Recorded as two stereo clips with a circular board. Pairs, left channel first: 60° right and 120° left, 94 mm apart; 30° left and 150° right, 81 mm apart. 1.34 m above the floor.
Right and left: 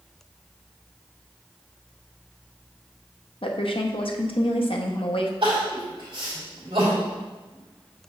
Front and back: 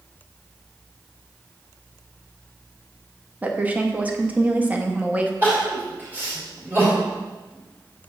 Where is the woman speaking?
80° right, 0.8 m.